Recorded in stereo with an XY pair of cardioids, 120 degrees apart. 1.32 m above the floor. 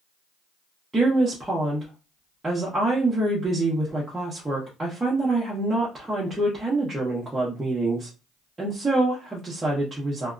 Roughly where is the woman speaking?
Ahead.